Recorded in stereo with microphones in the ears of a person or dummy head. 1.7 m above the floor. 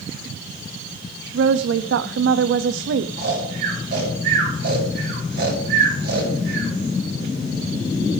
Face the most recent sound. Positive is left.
turn(degrees=-65)  # may be behind; listen again after turning